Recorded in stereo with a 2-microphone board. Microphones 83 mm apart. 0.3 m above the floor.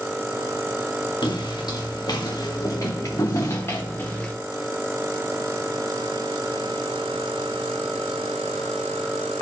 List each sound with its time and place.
1.2 s footsteps: 60° left (ahead or behind), 2.5 m; by 4.3 s 20° left (ahead or behind), 1.7 m